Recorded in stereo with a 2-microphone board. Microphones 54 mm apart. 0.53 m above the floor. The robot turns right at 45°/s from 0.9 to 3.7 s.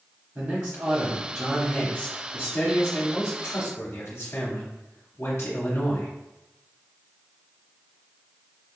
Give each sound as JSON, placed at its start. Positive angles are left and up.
{"t": 0.3, "sound": "a man speaking", "azimuth_deg": -35, "distance_m": 0.9}